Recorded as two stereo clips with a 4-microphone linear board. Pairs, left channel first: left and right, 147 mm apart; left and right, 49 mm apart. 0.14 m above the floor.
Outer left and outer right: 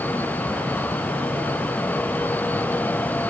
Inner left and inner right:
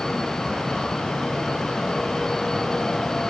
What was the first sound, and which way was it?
Only background noise.